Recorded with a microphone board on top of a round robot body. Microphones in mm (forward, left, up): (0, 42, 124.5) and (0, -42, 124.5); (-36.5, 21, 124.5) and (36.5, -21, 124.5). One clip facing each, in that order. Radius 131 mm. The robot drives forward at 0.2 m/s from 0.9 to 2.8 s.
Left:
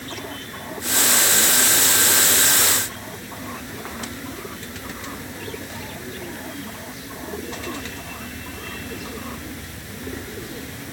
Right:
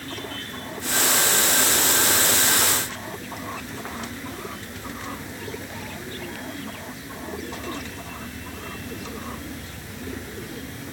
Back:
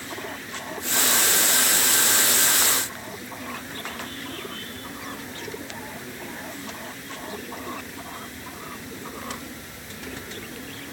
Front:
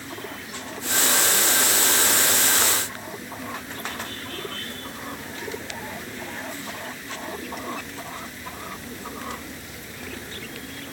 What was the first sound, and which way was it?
Only background noise.